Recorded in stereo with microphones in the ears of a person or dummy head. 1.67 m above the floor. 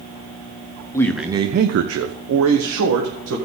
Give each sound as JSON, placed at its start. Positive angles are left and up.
{"t": 0.9, "sound": "a man speaking", "side_deg": 20, "distance_m": 0.6}